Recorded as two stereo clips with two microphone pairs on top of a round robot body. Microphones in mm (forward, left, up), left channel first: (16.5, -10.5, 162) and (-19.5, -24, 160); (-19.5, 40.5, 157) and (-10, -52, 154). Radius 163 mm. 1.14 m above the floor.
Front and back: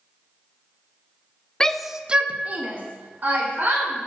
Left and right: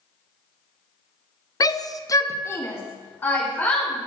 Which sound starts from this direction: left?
A shout, at 1.6 s.